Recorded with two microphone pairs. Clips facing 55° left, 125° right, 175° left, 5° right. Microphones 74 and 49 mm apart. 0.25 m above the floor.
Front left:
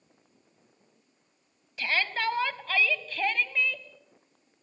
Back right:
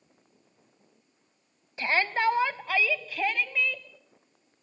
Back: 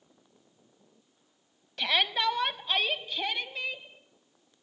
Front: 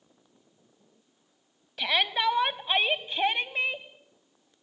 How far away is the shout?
About 1.6 m.